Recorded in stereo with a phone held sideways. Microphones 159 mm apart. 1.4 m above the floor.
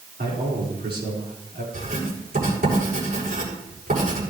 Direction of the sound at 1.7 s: 70° right (ahead or behind).